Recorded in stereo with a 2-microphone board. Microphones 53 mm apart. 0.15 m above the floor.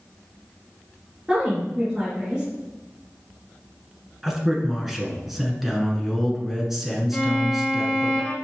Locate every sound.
1.3 s a woman speaking: 15° right (ahead or behind), 2.5 m
4.2 s a man speaking: 5° right (ahead or behind), 1.4 m
7.1 s a violin: 20° left (ahead or behind), 1.6 m